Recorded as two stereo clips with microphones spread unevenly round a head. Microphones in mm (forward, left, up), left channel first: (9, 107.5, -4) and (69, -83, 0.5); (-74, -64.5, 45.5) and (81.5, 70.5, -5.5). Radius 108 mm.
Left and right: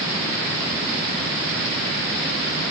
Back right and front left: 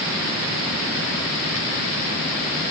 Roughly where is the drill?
I don't hear a drill.